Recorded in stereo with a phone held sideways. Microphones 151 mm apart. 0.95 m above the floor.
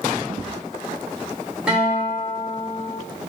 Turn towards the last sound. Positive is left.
turn(degrees=-5)  # may be behind; listen again after turning